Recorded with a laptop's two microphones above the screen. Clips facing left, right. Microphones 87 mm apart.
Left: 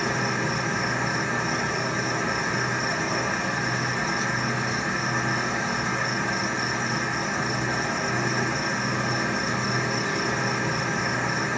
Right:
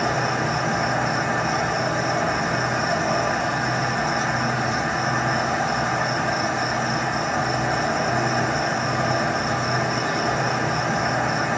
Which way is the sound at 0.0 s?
70° right (ahead or behind).